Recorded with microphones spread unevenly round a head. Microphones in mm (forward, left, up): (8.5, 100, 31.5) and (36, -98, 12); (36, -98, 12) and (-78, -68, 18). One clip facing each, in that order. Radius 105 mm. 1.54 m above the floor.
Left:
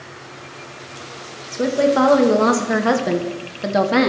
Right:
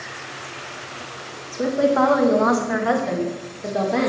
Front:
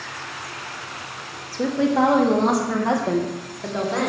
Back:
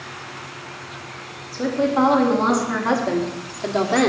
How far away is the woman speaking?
About 2 m.